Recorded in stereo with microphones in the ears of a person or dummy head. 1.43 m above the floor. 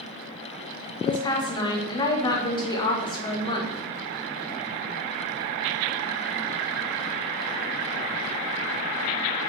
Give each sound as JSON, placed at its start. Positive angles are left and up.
{"t": 1.0, "sound": "a woman speaking", "side_deg": 25, "distance_m": 1.2}